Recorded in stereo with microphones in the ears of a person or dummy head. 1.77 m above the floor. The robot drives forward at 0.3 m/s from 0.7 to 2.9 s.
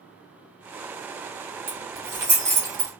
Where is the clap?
No clap in this recording.